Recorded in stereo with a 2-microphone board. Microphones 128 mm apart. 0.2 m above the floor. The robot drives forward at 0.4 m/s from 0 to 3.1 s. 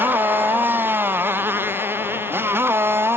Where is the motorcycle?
15° right (ahead or behind).